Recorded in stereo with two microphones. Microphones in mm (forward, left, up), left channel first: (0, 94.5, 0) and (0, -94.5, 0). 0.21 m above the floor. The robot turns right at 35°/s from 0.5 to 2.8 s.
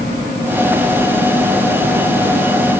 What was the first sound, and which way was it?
Only background noise.